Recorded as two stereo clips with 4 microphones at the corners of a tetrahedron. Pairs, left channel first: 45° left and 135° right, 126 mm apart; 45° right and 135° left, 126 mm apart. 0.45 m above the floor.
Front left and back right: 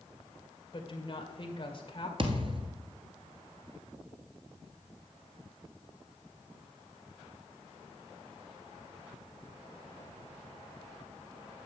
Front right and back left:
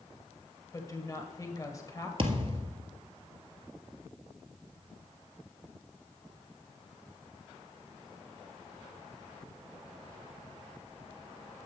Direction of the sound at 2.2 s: Straight behind.